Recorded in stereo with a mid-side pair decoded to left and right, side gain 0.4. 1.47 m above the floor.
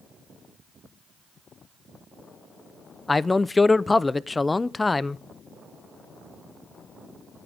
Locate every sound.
3.1 s a man speaking: 25° left, 0.8 m